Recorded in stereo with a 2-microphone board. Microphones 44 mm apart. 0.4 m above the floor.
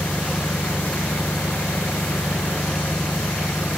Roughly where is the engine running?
Left.